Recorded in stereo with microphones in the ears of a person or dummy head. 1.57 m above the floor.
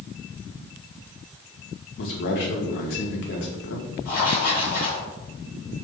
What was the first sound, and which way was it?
A man speaking, 50° left (ahead or behind).